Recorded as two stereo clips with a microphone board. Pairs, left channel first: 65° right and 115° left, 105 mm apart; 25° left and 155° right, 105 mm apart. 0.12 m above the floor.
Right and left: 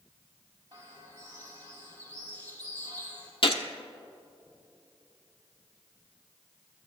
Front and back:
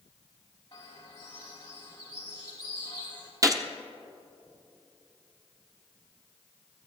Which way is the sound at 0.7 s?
75° left.